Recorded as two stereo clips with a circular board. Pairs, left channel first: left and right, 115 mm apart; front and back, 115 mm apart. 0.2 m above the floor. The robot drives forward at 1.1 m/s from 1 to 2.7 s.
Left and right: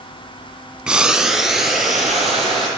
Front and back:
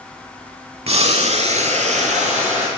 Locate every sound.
0.9 s boiling: 170° right, 0.5 m; by 2.7 s straight behind, 2.5 m